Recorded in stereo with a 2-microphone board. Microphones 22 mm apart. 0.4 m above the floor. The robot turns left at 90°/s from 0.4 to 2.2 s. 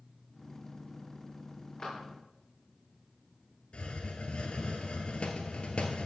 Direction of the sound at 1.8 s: 35° left (ahead or behind).